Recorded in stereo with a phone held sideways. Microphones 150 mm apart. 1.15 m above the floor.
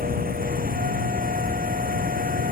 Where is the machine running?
75° right (ahead or behind).